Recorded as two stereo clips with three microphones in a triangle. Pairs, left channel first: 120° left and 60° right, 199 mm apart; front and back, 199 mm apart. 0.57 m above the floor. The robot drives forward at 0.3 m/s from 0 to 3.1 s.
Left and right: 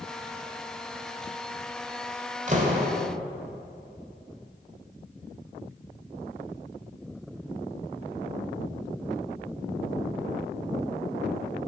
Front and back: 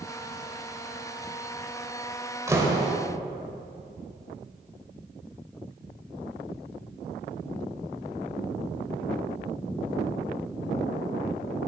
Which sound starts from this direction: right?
A door slam, at 2.5 s.